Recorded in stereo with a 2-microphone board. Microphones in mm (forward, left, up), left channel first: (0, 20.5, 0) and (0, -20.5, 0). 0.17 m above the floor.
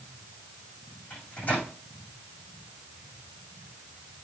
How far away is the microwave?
About 7.5 m.